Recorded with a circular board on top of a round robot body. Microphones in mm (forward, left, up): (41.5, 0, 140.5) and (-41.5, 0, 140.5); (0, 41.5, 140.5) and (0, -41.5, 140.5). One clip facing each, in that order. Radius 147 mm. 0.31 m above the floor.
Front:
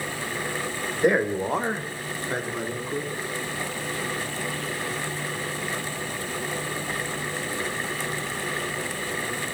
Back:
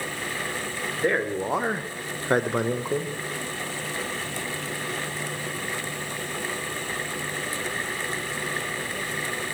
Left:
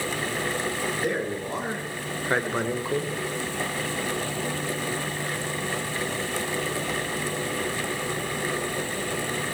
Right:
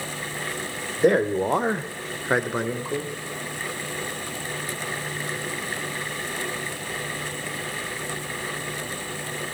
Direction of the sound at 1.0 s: 70° right.